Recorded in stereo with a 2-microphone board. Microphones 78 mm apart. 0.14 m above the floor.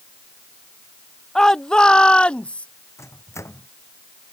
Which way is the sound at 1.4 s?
5° left (ahead or behind).